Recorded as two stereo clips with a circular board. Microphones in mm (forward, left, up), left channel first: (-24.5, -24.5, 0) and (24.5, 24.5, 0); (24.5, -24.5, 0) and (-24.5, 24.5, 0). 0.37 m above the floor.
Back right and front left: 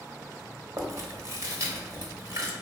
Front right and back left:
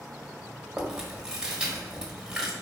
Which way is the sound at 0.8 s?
55° left.